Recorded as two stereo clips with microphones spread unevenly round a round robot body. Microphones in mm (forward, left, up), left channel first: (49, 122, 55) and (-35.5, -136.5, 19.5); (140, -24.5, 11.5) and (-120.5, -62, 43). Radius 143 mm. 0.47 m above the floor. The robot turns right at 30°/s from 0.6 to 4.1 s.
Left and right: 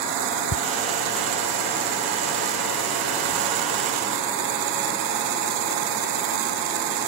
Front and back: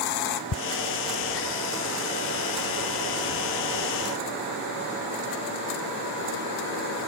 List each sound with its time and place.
0.5 s ticking: 30° left